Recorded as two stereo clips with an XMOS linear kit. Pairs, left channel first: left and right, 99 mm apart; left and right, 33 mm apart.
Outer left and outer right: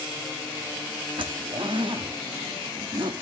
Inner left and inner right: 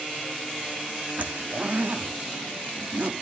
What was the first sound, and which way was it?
A zipper, 60° right (ahead or behind).